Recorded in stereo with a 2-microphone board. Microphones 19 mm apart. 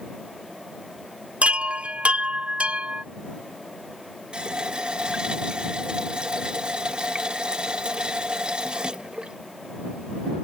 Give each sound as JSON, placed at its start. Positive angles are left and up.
{"t": 1.4, "sound": "a chime", "side_deg": -70}
{"t": 4.3, "sound": "a running tap", "side_deg": -45}